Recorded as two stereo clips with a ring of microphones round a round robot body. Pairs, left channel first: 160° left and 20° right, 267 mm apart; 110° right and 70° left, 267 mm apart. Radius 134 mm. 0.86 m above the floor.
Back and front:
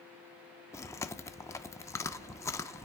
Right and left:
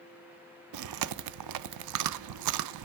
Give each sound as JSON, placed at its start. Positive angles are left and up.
{"t": 0.7, "sound": "chewing", "azimuth_deg": 80, "distance_m": 0.5}